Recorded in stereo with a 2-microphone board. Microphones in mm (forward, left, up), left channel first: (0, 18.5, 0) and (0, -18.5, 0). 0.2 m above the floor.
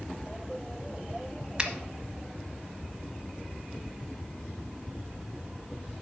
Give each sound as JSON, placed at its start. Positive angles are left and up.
{"t": 1.6, "sound": "a finger snap", "side_deg": -25, "distance_m": 1.0}